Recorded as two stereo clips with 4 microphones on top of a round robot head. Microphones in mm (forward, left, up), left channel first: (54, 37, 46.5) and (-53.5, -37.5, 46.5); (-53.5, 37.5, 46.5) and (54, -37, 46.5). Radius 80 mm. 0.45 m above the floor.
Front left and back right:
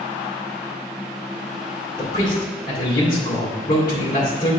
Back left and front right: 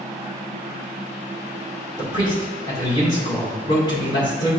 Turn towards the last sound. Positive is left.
turn(degrees=95)